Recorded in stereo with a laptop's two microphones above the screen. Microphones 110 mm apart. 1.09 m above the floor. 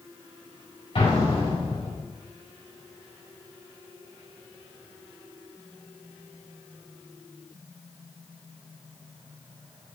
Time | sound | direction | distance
0.9 | an explosion | 55° left (ahead or behind) | 5 m